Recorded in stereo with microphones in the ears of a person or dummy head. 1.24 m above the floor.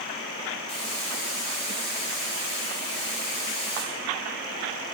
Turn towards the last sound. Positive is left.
turn(degrees=35)  # may be behind; listen again after turning